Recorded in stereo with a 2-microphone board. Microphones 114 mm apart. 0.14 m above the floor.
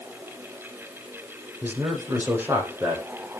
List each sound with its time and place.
1.6 s a man speaking: 15° right (ahead or behind), 6 m